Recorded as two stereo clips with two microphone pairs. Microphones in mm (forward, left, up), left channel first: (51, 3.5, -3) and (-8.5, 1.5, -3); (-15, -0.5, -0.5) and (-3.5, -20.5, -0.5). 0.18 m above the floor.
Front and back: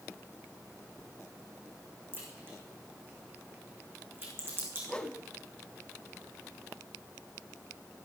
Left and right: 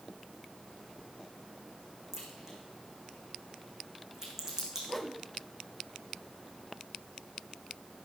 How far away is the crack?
About 4.5 m.